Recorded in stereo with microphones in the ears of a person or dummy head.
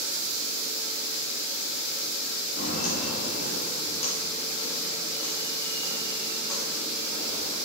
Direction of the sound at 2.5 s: 55° left (ahead or behind).